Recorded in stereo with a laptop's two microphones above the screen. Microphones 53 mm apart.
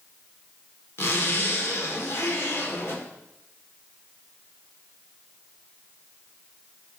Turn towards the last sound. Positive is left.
turn(degrees=50)  # may be behind; listen again after turning